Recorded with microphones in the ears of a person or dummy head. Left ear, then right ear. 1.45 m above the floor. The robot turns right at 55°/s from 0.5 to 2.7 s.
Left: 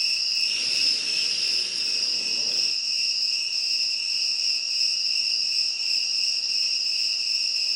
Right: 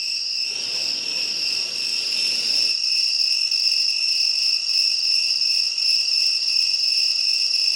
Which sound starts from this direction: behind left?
An insect, at 0.0 s.